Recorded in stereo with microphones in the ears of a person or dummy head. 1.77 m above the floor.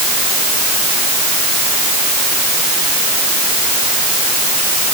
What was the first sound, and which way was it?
Only background noise.